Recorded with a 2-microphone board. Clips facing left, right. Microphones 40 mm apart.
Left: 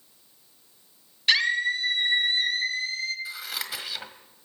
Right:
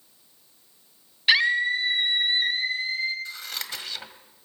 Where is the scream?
15° right (ahead or behind), 3 m; by 3.1 s 20° right (ahead or behind), 5 m.